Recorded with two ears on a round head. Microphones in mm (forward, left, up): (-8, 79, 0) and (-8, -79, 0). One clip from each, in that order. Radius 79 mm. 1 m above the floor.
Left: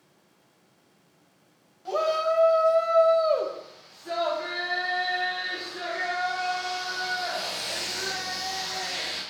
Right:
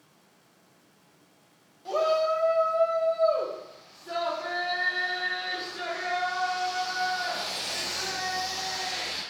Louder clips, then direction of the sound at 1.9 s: Even; 5° right (ahead or behind).